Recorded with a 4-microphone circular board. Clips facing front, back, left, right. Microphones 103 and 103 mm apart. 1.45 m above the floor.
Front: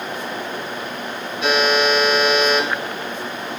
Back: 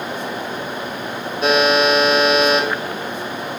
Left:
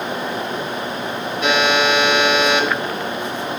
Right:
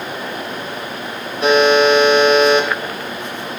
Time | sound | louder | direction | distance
1.4 | a buzzer | back 3 dB, right 6 dB | 140° right | 2 m